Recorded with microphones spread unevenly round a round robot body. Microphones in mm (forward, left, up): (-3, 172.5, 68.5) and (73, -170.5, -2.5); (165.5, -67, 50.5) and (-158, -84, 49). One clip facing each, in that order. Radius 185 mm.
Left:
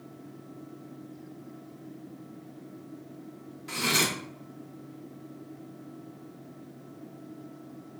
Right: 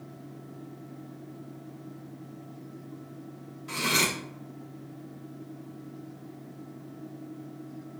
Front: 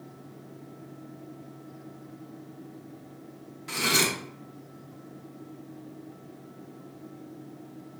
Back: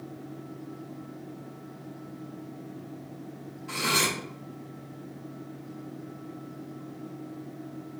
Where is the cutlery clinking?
15° left, 0.6 m.